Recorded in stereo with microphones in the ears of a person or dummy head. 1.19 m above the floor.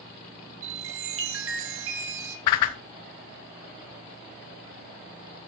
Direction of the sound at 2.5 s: 20° left (ahead or behind).